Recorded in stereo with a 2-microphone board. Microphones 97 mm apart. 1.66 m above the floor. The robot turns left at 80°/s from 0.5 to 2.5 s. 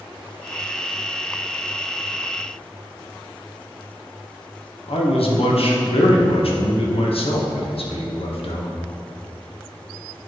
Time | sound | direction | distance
4.9 | a man speaking | 75° left (ahead or behind) | 1.1 m